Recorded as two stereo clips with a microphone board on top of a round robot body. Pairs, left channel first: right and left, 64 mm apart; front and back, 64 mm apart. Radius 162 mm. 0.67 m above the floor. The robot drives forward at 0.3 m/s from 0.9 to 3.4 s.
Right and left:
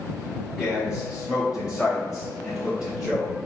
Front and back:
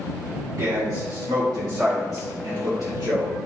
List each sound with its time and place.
0.6 s a man speaking: 155° left, 2 m; by 3.4 s 160° left, 2.5 m